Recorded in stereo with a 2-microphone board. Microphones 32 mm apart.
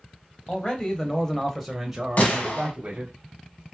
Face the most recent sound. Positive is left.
turn(degrees=55)  # may be behind; listen again after turning